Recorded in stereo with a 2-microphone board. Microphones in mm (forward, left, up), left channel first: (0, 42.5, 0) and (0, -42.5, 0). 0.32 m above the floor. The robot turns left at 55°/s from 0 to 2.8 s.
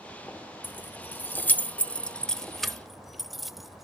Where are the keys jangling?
20° left (ahead or behind), 0.8 m; by 3.9 s centre (ahead or behind), 0.8 m.